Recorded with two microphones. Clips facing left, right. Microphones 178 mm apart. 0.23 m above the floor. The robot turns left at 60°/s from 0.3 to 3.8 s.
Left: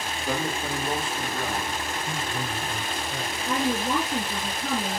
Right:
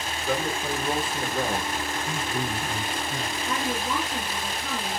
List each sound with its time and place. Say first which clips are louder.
0.2 s a man speaking: right 1 dB; 40° left, 7 m; by 1.7 s 45° right, 7 m
2.1 s a man speaking: right 2 dB; 10° right, 2.5 m; by 3.4 s 90° right, 2.5 m
3.5 s a woman speaking: left 5 dB; 20° left (ahead or behind), 4 m; by 5.0 s 40° left (ahead or behind), 4 m